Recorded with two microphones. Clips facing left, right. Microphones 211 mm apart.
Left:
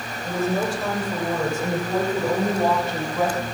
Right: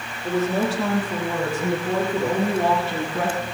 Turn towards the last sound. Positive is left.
turn(degrees=-75)  # may be behind; listen again after turning